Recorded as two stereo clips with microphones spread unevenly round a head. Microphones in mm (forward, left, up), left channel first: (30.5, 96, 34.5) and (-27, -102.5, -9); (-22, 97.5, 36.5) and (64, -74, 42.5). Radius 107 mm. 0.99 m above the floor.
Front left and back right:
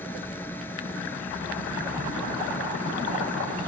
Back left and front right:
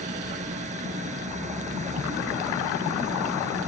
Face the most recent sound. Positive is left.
turn(degrees=-5)